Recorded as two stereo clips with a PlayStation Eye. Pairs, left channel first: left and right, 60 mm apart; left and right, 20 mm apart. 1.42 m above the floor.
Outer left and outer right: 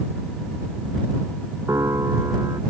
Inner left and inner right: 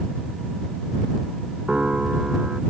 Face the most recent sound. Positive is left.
turn(degrees=-60)  # may be behind; listen again after turning